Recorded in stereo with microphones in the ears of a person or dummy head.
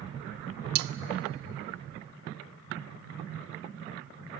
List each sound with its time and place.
0.8 s cutlery clinking: 60° right (ahead or behind), 0.6 m